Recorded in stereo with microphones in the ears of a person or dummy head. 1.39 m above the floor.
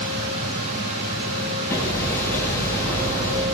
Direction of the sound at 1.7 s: 15° left (ahead or behind).